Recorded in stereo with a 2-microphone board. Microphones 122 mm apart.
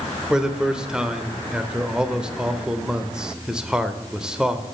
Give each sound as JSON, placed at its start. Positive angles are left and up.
{"t": 0.3, "sound": "a man speaking", "side_deg": -5, "distance_m": 0.8}